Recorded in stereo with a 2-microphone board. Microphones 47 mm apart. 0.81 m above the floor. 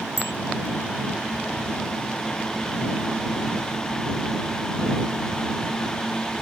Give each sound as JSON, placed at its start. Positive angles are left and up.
{"t": 0.2, "sound": "a bicycle bell", "side_deg": 75}